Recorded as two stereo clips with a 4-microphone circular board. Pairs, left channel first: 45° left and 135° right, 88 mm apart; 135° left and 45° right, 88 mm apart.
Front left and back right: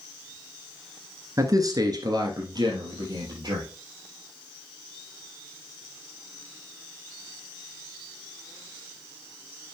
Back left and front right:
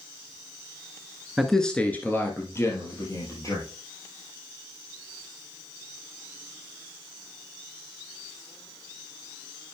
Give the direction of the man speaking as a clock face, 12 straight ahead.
4 o'clock.